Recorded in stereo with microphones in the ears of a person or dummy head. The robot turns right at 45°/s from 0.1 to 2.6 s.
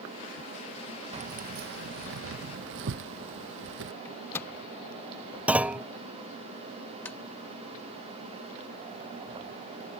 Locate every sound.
1.1 s keys jangling: 35° right (ahead or behind); by 3.9 s 65° right (ahead or behind)
4.0 s a microwave: 10° left (ahead or behind)
5.5 s a clunk: 5° right (ahead or behind)
7.0 s tapping: 10° left (ahead or behind)